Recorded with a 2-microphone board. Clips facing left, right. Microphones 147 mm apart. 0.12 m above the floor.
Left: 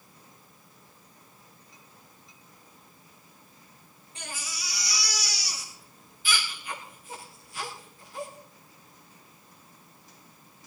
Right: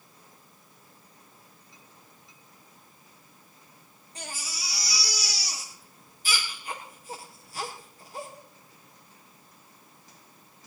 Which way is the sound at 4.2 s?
40° right (ahead or behind).